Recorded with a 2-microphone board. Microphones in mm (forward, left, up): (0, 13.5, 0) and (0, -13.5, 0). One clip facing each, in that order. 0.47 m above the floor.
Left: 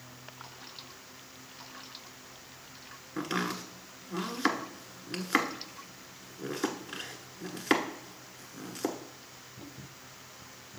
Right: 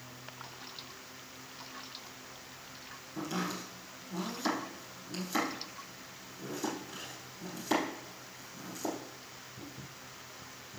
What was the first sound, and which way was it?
Chopping, 65° left (ahead or behind).